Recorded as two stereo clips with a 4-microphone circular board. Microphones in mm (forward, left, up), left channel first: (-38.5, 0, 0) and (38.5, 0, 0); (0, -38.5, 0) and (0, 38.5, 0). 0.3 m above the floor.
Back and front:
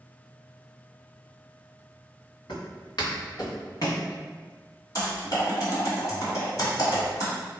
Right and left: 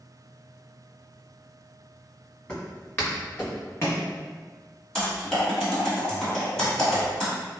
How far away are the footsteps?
About 1.6 m.